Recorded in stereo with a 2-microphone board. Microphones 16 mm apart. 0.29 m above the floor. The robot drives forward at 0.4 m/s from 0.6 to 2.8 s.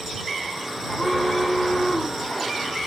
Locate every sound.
0.8 s an alarm: 65° left (ahead or behind), 4.5 m; by 2.9 s 75° left (ahead or behind), 4.5 m